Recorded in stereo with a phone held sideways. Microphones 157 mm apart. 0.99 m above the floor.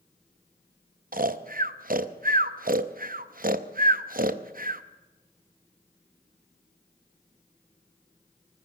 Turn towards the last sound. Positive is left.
turn(degrees=-65)  # may be behind; listen again after turning